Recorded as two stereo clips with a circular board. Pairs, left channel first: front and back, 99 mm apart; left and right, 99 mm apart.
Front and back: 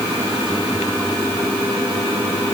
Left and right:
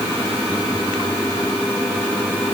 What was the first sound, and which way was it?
Only background noise.